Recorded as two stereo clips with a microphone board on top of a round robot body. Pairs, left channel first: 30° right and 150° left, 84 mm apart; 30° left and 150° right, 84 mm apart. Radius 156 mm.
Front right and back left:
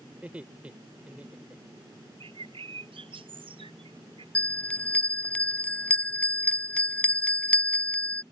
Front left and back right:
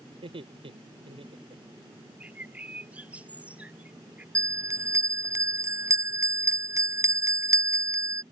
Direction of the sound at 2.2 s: 135° left.